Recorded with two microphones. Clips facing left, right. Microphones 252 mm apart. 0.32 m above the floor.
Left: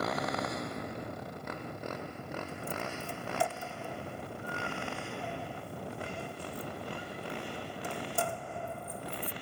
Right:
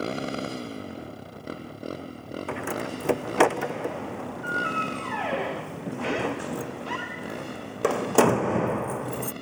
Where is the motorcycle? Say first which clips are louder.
Right 5 dB; 30° right (ahead or behind); by 9.4 s 45° right (ahead or behind).